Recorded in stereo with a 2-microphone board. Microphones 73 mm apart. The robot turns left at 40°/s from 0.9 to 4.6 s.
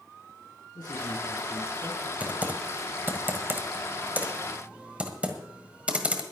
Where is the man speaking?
75° left, 3.5 m; by 2.1 s 30° left, 3.5 m.